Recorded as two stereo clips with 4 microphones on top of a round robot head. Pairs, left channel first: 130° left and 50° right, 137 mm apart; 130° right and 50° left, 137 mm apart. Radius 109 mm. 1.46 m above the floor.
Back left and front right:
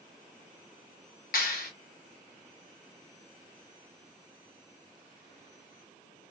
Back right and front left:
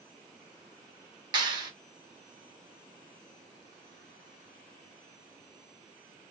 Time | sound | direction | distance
1.3 | a clap | 110° left | 1.6 m